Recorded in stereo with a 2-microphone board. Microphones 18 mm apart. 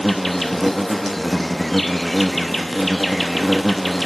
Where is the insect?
10° left (ahead or behind), 0.7 m.